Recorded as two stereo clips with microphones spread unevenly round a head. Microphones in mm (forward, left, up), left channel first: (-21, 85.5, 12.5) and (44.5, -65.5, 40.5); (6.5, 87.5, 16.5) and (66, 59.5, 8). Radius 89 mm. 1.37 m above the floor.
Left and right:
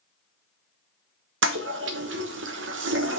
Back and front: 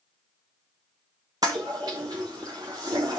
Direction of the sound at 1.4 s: 90° right.